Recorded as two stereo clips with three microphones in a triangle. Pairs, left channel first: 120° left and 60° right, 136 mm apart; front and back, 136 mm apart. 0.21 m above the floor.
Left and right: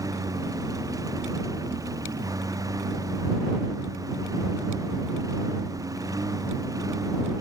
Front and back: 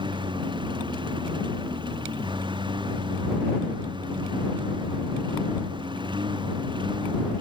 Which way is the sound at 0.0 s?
125° right.